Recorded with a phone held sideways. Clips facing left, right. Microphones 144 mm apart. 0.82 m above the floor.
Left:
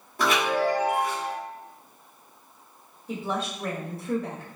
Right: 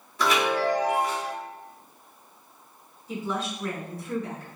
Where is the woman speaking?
60° left (ahead or behind), 1.5 m.